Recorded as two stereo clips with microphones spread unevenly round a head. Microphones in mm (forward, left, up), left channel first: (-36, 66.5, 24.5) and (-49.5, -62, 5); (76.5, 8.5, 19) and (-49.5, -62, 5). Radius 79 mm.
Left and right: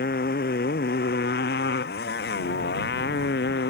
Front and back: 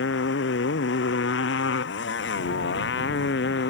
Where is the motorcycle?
45° left; by 3.7 s 55° left.